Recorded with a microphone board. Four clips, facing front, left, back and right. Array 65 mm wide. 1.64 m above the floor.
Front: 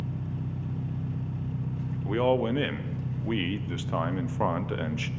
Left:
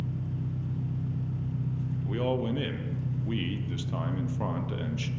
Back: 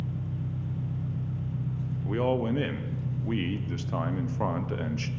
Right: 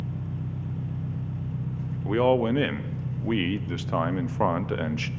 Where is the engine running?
30° right, 3 m.